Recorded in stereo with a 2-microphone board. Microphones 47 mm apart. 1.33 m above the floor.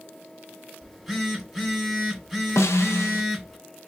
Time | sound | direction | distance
0.8 | a phone buzzing | centre (ahead or behind) | 1.4 m
2.6 | a snare drum | 75° left (ahead or behind) | 0.5 m